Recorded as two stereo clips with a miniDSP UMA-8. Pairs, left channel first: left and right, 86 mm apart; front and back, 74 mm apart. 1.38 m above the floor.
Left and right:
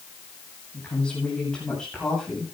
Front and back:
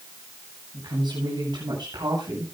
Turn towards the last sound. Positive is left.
turn(degrees=175)